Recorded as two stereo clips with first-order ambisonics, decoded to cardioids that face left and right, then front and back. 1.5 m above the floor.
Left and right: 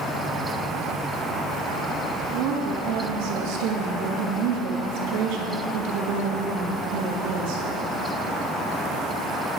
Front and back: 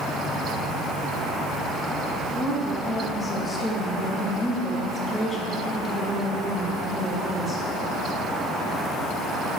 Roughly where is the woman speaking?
Right.